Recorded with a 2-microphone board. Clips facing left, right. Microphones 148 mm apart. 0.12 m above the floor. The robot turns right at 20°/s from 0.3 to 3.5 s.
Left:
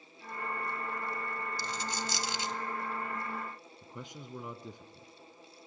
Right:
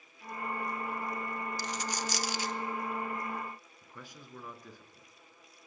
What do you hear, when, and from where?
1.6 s a dropped coin: 30° left (ahead or behind), 0.6 m; by 2.6 s 25° left (ahead or behind), 0.6 m
3.8 s a man speaking: 20° left (ahead or behind), 1.3 m